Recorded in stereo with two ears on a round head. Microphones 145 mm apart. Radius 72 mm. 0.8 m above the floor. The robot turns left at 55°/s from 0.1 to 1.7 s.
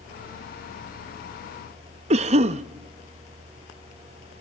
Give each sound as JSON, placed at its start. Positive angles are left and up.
{"t": 2.1, "sound": "a cough", "side_deg": -40, "distance_m": 0.7}